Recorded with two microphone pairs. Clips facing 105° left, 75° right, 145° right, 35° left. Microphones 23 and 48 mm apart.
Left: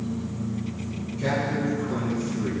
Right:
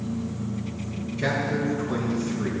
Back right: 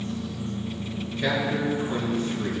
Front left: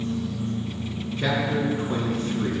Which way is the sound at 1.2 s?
15° right.